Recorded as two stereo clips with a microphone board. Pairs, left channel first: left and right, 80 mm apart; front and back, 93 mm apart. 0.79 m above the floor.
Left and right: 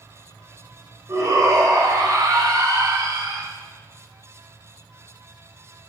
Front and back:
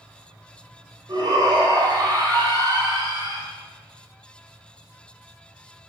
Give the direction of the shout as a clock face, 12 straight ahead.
5 o'clock.